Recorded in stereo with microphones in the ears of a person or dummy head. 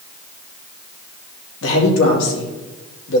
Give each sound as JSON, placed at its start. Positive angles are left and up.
{"t": 1.6, "sound": "a man speaking", "side_deg": 75, "distance_m": 2.5}